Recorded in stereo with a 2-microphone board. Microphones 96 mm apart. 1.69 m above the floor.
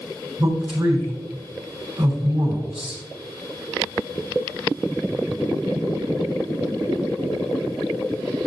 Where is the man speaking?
70° right (ahead or behind), 3 m.